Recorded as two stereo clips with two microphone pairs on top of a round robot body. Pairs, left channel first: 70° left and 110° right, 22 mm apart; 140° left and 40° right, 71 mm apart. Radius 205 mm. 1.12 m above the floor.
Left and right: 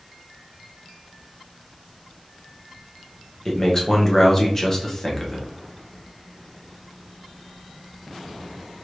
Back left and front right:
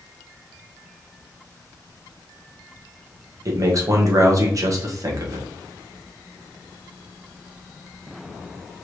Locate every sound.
3.5 s a man speaking: straight ahead, 1.5 m